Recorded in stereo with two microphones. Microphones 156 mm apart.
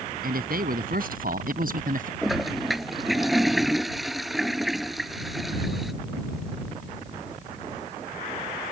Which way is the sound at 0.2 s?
70° right (ahead or behind).